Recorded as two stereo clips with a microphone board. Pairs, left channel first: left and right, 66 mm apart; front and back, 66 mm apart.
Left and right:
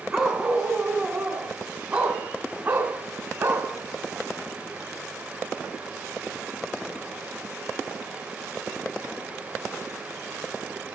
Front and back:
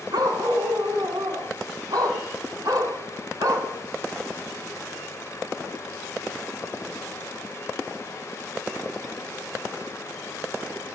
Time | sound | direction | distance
0.1 | a dog barking | 170° right | 5 m